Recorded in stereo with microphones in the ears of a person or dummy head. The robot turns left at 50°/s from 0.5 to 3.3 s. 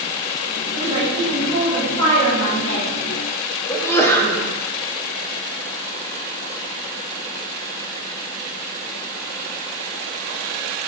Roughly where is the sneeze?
Centre.